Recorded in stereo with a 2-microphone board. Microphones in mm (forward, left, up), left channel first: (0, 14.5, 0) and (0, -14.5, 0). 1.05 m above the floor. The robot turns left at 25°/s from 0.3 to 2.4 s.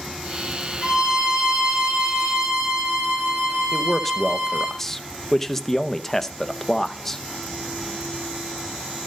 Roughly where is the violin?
Ahead right.